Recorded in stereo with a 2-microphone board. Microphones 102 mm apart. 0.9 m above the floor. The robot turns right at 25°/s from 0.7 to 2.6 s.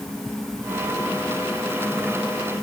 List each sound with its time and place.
Only background noise.